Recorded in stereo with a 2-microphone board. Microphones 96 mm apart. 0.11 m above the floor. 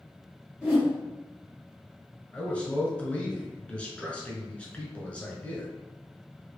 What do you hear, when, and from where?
0.6 s a whoosh: 10° right (ahead or behind), 1.8 m
2.3 s a man speaking: 15° left (ahead or behind), 1.1 m